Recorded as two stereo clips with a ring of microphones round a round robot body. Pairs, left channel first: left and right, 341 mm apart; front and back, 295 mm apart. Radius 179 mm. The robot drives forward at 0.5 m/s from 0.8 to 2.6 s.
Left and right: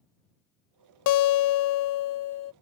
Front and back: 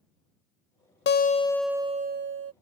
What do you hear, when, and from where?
1.1 s a guitar: 55° left; by 2.5 s 135° left